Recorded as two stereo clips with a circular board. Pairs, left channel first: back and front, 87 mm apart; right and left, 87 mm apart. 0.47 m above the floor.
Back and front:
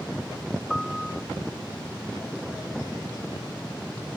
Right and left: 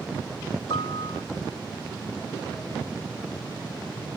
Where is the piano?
95° right.